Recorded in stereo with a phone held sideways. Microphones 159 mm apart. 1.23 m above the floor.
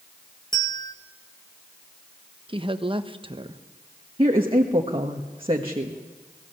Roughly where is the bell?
Left.